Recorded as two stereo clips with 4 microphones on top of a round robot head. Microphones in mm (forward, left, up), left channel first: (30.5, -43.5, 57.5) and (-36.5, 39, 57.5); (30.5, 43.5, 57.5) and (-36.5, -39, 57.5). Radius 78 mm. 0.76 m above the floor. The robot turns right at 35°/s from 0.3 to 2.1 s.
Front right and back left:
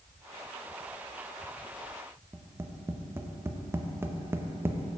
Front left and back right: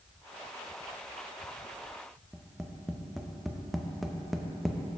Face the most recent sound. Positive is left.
turn(degrees=140)